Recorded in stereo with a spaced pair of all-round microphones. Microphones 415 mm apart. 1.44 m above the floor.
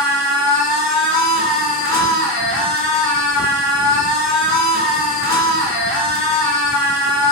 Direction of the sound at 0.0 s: 35° right (ahead or behind).